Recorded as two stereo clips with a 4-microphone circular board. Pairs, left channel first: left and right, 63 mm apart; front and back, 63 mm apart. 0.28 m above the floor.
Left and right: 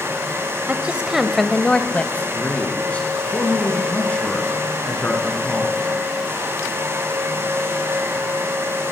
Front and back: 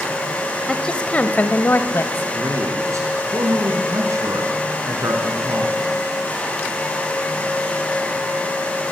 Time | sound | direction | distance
0.7 | a woman speaking | 70° right | 1.0 m
2.3 | a man speaking | 155° left | 4.5 m